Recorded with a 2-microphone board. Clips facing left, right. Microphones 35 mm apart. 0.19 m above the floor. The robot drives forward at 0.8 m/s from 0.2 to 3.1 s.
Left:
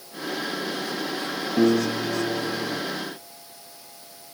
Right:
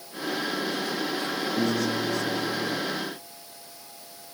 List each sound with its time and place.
1.6 s a piano: 70° left (ahead or behind); by 2.8 s 75° left (ahead or behind)